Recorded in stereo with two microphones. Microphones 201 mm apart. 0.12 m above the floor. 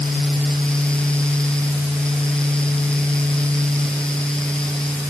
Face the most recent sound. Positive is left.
No sound to turn to.